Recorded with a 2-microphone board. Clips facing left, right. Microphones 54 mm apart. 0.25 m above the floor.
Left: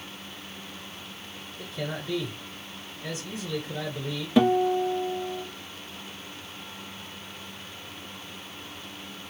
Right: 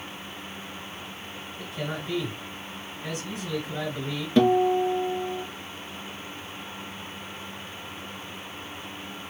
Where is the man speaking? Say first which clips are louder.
Right 1 dB; 50° right (ahead or behind), 2.0 m.